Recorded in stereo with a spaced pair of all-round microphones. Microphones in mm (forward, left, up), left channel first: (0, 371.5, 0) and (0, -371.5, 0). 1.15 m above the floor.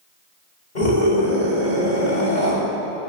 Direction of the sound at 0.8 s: 85° left.